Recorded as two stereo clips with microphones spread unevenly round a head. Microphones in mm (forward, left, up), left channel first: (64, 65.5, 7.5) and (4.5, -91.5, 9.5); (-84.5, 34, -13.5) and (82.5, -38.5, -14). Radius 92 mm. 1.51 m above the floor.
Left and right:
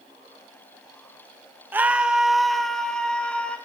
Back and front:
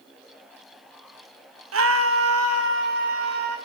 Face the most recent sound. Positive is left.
turn(degrees=-15)